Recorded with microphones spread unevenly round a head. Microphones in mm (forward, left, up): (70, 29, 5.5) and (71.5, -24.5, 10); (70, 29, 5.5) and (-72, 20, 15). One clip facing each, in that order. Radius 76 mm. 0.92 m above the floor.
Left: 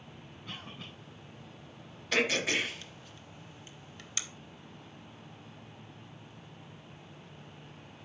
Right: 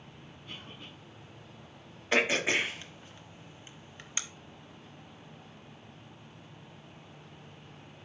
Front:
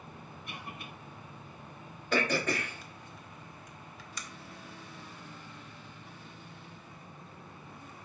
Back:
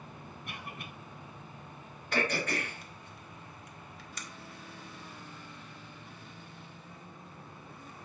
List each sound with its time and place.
0.5 s a cough: 140° left, 4 m
2.1 s throat clearing: 20° right, 1.2 m